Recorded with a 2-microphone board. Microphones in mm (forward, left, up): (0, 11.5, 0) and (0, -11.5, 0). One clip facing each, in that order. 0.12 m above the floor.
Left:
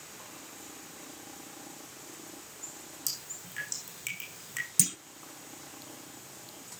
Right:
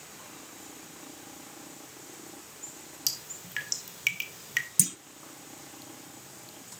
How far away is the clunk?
About 0.5 m.